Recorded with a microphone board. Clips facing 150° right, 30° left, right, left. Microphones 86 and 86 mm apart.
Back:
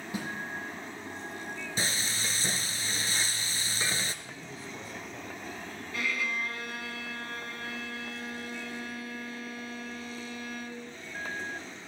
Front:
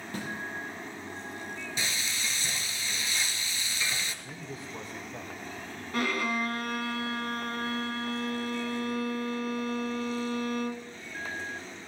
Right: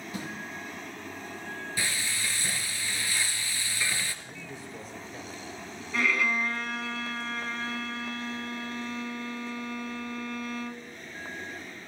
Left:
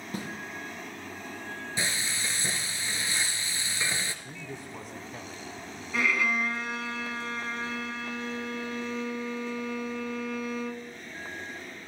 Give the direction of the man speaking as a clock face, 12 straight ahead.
9 o'clock.